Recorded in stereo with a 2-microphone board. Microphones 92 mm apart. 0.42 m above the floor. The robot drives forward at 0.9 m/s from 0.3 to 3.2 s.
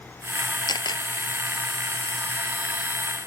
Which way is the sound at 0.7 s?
50° left (ahead or behind).